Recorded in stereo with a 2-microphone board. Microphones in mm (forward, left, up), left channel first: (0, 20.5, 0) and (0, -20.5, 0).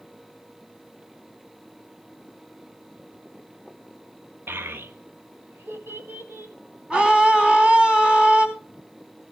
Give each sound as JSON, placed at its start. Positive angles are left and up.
{"t": 4.5, "sound": "a child speaking", "side_deg": -60, "distance_m": 0.8}
{"t": 6.9, "sound": "a scream", "side_deg": -30, "distance_m": 3.5}